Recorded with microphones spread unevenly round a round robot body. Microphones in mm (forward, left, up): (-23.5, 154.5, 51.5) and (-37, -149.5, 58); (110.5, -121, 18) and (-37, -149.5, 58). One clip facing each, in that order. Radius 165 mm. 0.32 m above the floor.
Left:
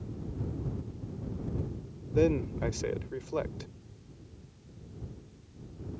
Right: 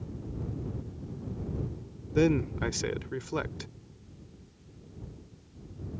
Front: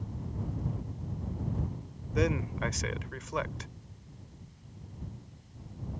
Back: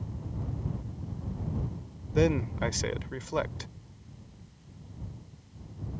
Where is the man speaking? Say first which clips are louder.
Right 1 dB, back 4 dB; 120° right.